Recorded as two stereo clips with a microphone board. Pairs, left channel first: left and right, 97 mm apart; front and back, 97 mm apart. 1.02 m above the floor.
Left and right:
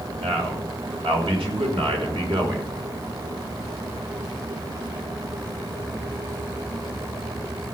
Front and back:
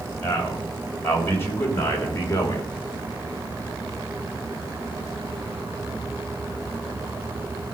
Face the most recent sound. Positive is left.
turn(degrees=-60)